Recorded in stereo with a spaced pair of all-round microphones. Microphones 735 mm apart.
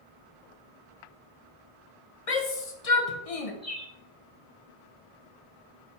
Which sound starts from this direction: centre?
A bird, at 3.6 s.